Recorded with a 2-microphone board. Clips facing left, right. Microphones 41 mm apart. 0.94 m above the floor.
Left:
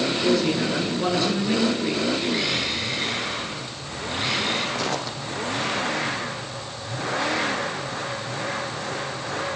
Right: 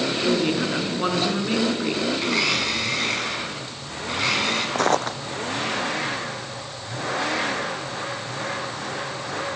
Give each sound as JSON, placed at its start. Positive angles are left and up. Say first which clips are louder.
{"t": 0.2, "sound": "a woman speaking", "louder": "even", "side_deg": -30, "distance_m": 9.5}
{"t": 2.2, "sound": "a blender", "louder": "right 2 dB", "side_deg": -85, "distance_m": 9.0}
{"t": 4.8, "sound": "footsteps", "louder": "right 6 dB", "side_deg": -55, "distance_m": 1.7}